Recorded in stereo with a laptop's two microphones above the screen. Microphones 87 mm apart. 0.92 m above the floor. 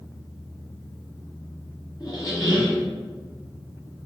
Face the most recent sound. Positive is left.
turn(degrees=40)  # may be behind; listen again after turning